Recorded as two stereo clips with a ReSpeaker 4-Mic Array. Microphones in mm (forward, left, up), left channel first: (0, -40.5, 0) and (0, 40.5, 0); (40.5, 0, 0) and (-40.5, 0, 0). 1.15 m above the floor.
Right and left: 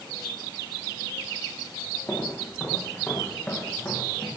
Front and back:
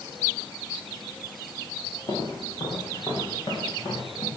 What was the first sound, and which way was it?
Footsteps, 25° right.